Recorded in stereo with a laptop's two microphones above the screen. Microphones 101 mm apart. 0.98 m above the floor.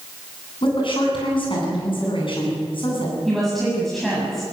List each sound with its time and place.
0.6 s a woman speaking: 60° left (ahead or behind), 9.5 m
3.2 s a woman speaking: centre (ahead or behind), 8 m